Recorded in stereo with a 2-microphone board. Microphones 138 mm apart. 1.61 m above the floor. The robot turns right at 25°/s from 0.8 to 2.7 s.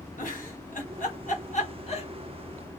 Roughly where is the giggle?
Left.